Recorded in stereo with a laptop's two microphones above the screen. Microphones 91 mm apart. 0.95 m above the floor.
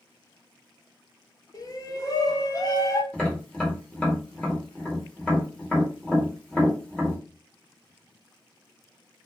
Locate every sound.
1.5 s a shout: 40° left (ahead or behind), 0.5 m
3.1 s tapping: 10° left (ahead or behind), 0.9 m